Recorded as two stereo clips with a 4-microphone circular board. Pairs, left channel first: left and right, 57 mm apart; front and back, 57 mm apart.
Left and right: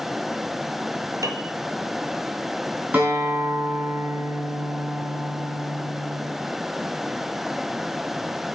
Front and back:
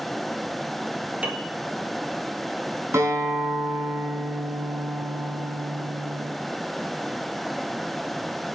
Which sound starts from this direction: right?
A piano, at 1.2 s.